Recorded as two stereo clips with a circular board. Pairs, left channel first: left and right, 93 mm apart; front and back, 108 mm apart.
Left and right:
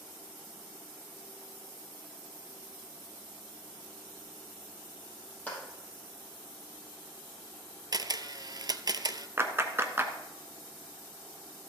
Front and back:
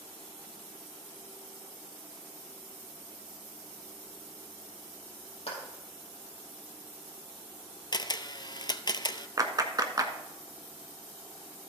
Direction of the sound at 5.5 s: 15° left.